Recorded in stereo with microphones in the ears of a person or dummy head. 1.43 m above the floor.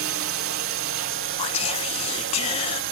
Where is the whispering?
40° left (ahead or behind).